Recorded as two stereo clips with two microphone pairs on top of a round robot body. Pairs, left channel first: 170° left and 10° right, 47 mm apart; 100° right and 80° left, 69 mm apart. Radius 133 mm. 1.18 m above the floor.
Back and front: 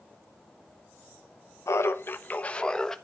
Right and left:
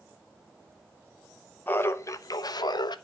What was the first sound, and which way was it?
Laughter, 165° right.